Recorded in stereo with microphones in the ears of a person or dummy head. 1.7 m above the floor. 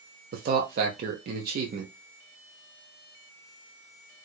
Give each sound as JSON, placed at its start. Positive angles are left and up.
{"t": 0.3, "sound": "a man speaking", "side_deg": -50, "distance_m": 0.9}